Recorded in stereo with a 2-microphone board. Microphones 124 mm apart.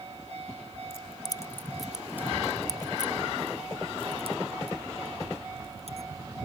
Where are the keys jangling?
50° left (ahead or behind); by 6.1 s 55° right (ahead or behind).